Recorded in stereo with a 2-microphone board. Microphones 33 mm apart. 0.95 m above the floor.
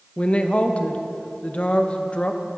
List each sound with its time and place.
0.2 s a woman speaking: 40° left (ahead or behind), 0.7 m